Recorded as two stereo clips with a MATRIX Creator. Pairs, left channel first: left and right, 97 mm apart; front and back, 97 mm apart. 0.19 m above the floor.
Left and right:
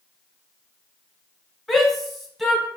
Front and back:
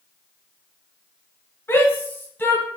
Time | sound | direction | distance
1.7 | a shout | 5° left | 1.0 m